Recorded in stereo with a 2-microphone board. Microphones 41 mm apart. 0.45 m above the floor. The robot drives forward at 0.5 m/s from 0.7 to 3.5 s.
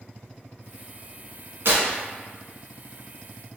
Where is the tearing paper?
65° right (ahead or behind), 1.0 m; by 1.9 s 60° right (ahead or behind), 1.0 m.